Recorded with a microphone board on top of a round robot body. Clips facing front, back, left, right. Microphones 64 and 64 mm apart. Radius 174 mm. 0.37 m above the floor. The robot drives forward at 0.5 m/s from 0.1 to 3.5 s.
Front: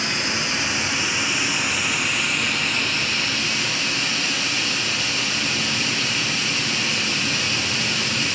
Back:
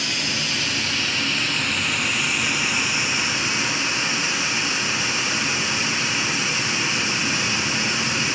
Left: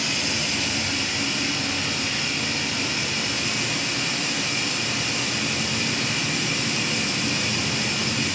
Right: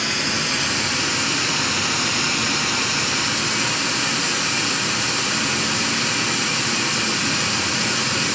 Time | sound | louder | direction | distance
0.0 | running water | front 2 dB, right 4 dB | 55° right | 2.0 m